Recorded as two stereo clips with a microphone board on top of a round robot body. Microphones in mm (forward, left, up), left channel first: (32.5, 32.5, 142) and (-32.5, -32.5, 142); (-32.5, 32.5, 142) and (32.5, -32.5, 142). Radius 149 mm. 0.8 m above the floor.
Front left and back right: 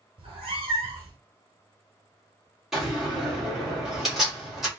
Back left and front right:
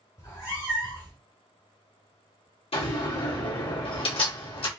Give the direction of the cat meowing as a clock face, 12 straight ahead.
6 o'clock.